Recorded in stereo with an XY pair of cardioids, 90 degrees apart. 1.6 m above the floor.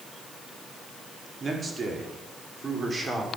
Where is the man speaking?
40° right, 5 m; by 3.3 s 30° right, 6 m.